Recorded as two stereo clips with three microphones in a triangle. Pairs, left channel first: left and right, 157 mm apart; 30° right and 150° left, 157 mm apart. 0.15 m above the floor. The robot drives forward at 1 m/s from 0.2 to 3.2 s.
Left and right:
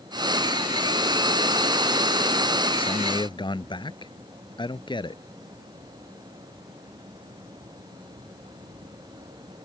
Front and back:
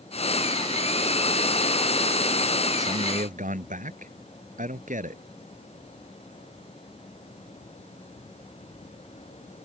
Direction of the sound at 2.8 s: 135° left.